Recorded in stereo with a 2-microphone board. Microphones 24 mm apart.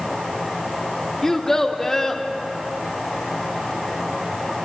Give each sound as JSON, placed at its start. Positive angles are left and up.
{"t": 1.2, "sound": "a child speaking", "side_deg": 20, "distance_m": 1.1}